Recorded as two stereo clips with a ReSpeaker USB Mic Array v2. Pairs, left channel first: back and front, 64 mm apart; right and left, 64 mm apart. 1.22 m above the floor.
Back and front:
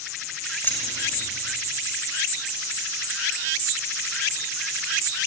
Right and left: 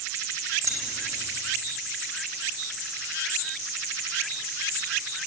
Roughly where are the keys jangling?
Behind left.